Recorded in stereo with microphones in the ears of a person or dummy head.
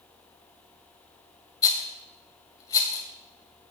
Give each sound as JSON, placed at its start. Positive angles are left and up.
{"t": 1.6, "sound": "a rattle", "side_deg": 15, "distance_m": 1.7}